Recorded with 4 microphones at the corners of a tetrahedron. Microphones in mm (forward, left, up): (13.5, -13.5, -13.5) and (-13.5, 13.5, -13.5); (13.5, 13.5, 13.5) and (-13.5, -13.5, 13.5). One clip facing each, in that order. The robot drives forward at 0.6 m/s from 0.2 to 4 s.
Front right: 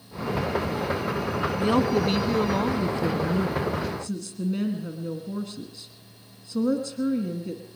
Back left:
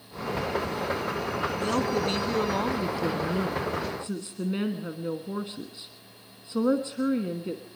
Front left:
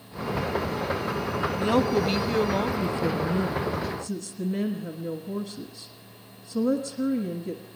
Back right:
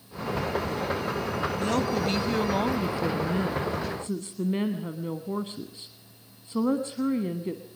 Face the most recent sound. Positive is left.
turn(degrees=-175)